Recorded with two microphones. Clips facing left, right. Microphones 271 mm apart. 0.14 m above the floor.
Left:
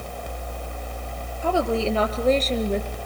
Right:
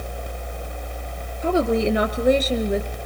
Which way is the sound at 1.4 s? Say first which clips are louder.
Right 3 dB; 25° right (ahead or behind).